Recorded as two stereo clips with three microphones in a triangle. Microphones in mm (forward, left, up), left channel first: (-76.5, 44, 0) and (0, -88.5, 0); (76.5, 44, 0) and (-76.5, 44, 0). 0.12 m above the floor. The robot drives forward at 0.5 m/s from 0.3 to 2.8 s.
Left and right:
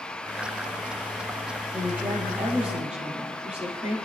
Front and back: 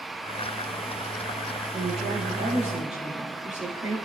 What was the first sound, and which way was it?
A woman speaking, 140° right.